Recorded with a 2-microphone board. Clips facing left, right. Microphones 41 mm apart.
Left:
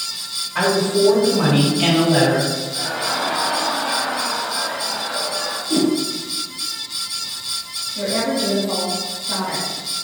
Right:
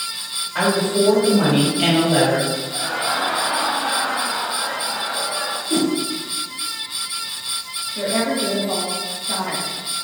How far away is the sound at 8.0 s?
About 1.4 m.